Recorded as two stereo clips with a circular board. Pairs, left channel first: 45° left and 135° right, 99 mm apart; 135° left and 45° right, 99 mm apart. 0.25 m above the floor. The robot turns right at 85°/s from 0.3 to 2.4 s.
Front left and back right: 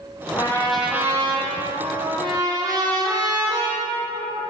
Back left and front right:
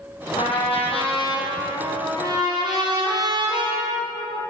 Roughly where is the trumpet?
Left.